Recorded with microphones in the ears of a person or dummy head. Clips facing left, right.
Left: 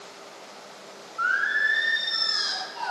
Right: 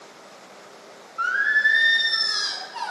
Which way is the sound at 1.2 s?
55° right (ahead or behind).